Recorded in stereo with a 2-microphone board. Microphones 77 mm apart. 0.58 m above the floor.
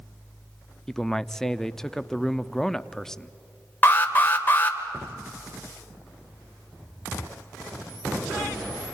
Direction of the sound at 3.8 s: 30° left (ahead or behind).